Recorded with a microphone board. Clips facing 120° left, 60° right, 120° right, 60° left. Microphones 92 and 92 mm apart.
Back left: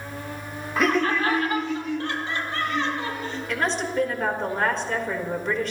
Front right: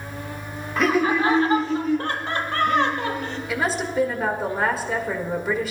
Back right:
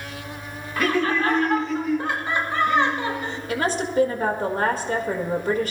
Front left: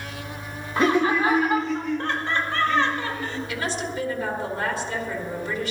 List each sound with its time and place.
0.8 s laughter: 35° left, 0.8 m; by 3.4 s 55° right, 1.9 m
3.5 s a woman speaking: 140° right, 1.6 m